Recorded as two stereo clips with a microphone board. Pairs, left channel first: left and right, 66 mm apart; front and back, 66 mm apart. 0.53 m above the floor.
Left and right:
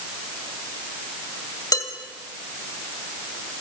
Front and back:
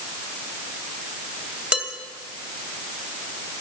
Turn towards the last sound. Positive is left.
turn(degrees=105)